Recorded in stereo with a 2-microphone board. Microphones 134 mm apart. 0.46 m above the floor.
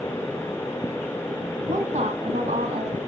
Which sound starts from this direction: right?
A woman speaking, at 1.7 s.